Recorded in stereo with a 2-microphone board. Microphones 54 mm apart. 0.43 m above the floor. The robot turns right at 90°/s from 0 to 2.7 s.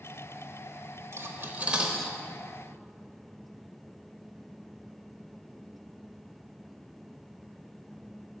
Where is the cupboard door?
No cupboard door in this recording.